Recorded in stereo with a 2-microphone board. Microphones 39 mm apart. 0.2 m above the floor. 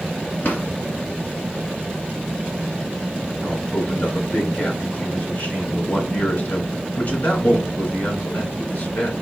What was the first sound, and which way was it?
A drawer, 60° left (ahead or behind).